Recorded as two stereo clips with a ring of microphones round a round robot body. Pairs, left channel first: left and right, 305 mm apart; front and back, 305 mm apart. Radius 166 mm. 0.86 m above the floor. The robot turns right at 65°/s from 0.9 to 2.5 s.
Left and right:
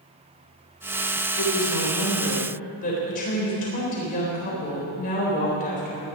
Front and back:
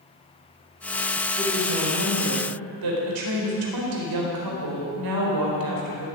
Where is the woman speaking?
85° left, 4 m; by 6.1 s 155° left, 4 m.